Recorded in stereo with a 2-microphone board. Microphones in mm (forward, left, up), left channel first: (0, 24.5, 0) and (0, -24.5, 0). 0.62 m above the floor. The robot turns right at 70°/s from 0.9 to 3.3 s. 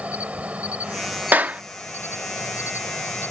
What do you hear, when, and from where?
0.0 s an insect: 30° right; by 3.3 s 140° left
1.3 s a clap: 40° right (ahead or behind); by 1.6 s 25° right (ahead or behind)